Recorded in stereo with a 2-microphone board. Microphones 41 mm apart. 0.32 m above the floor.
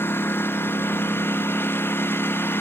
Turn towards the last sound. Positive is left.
turn(degrees=65)  # may be behind; listen again after turning